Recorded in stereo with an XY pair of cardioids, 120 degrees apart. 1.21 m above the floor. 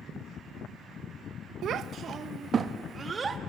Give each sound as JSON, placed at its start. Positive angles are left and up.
{"t": 1.6, "sound": "a child speaking", "azimuth_deg": -60, "distance_m": 0.9}